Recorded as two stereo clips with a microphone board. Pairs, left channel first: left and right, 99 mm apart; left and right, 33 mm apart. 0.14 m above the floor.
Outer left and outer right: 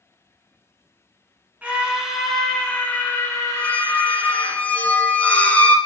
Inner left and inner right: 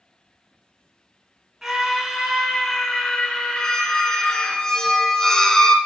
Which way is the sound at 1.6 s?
15° right (ahead or behind).